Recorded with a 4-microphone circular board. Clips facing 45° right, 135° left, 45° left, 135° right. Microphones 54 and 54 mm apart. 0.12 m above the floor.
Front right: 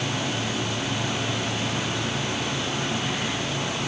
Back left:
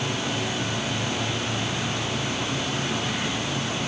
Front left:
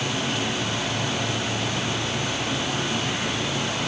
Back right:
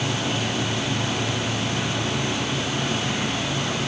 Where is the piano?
No piano in this recording.